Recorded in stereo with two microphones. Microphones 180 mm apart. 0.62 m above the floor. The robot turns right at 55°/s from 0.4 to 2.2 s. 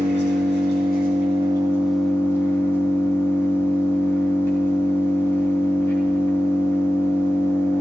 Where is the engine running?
85° right, 3 m; by 7.8 s 15° left, 3 m.